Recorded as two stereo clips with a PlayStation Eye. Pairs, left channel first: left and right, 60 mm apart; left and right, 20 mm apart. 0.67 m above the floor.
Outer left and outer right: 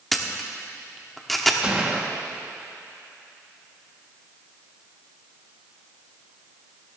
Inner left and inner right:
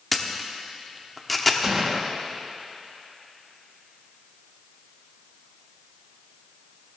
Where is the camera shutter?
5° left (ahead or behind), 1.1 m.